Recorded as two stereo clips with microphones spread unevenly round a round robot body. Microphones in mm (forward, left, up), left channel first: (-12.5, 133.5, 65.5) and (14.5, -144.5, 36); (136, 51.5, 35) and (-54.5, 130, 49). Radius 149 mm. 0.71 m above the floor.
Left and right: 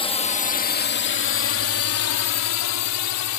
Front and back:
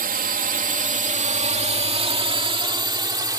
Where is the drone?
165° left; by 3.4 s 85° left.